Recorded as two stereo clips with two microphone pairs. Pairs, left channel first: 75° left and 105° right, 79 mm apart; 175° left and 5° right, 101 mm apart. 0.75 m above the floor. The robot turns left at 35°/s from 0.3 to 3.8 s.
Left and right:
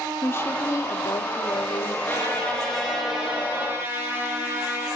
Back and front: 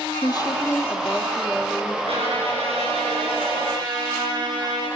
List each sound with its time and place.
0.2 s a woman speaking: 135° left, 1.3 m; by 2.0 s 75° left, 1.3 m
2.1 s a trumpet: 15° left, 9 m; by 4.9 s 45° right, 9 m